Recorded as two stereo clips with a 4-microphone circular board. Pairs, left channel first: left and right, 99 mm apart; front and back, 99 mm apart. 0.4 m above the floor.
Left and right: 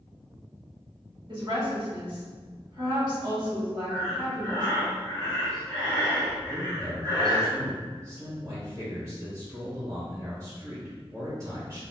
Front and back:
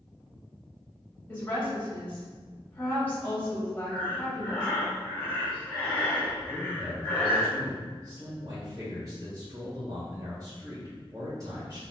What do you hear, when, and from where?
1.3 s a woman speaking: 65° right, 1.7 m
3.9 s breathing: 60° right, 1.8 m
6.5 s a man speaking: 140° right, 1.2 m